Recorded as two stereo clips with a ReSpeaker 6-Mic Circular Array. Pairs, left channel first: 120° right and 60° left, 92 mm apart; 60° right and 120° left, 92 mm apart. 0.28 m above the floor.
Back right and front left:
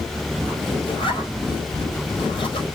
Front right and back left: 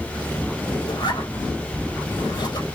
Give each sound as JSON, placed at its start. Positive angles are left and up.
{"t": 0.9, "sound": "a zipper", "azimuth_deg": -95, "distance_m": 2.5}